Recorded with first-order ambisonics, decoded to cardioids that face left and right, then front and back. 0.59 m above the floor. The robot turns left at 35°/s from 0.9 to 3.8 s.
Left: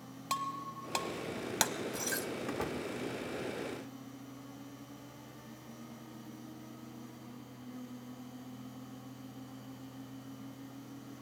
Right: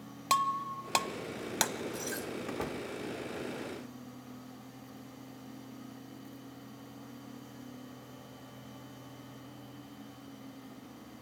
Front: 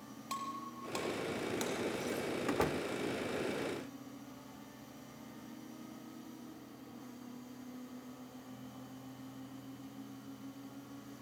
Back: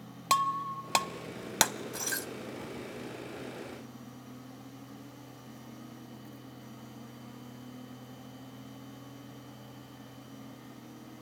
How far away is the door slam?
About 0.7 m.